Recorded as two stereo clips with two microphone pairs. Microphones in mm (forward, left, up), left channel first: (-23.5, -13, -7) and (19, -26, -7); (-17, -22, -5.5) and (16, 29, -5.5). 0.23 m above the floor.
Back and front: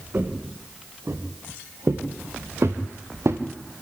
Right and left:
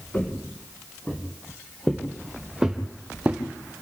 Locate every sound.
0.1 s footsteps: 60° right, 5 m; by 3.4 s 5° right, 3 m